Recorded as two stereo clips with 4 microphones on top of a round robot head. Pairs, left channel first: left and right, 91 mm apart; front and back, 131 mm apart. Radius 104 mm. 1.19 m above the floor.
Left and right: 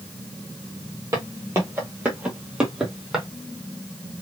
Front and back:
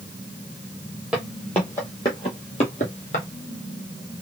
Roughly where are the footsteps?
Right.